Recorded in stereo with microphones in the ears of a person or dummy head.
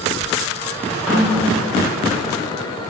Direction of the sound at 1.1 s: 10° right (ahead or behind).